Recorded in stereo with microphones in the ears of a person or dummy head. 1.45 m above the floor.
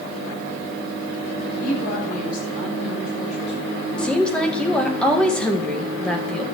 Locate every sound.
1.6 s a woman speaking: 55° left (ahead or behind), 10 m; by 4.3 s 35° left (ahead or behind), 8 m
4.0 s a woman speaking: 10° left (ahead or behind), 1.8 m